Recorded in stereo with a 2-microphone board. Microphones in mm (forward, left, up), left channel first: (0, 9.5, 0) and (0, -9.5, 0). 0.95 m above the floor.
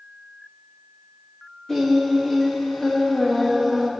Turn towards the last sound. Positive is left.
turn(degrees=20)  # may be behind; listen again after turning